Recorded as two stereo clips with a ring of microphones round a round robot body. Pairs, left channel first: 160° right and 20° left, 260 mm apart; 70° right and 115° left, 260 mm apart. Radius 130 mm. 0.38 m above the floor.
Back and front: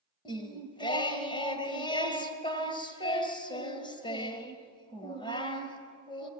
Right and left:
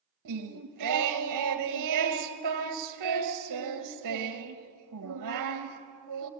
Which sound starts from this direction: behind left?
Singing, at 0.2 s.